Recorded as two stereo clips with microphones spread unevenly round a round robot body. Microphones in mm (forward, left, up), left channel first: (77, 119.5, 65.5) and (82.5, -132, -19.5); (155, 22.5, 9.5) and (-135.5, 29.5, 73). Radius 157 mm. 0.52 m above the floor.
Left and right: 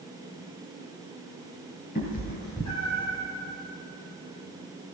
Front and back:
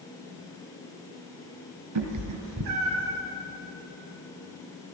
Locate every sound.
1.9 s a cat meowing: 155° left, 1.7 m; by 3.2 s 140° left, 2 m